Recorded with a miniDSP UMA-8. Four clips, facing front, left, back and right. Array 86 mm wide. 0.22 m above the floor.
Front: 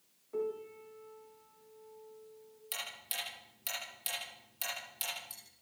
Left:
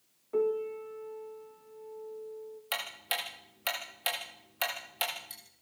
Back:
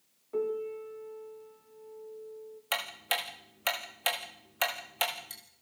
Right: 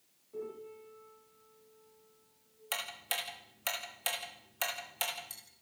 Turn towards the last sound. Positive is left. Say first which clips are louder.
# left 2 dB, back 11 dB
turn(degrees=165)